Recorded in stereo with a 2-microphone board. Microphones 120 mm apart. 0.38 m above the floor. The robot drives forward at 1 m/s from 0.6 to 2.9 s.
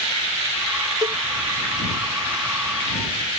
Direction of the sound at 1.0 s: 35° right (ahead or behind).